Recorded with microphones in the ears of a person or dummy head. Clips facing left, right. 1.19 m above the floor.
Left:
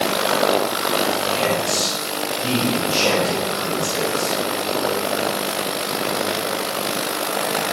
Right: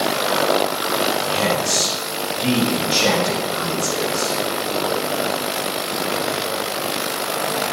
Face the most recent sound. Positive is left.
turn(degrees=-25)  # may be behind; listen again after turning